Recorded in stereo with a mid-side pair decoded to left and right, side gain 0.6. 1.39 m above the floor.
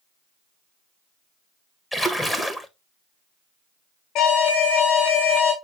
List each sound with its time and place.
1.9 s a splash: 10° left, 1.4 m
4.2 s an alarm: 65° left, 4 m